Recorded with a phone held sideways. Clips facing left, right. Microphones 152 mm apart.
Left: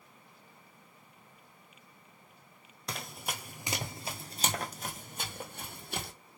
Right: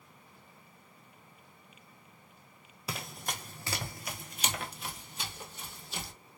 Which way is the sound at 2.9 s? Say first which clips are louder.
Even; 5° right (ahead or behind).